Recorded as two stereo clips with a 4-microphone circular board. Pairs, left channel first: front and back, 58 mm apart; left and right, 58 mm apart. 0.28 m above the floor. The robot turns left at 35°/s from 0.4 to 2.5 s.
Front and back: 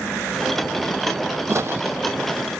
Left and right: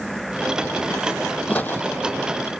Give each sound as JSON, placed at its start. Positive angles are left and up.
{"t": 1.5, "sound": "footsteps", "azimuth_deg": 150, "distance_m": 0.5}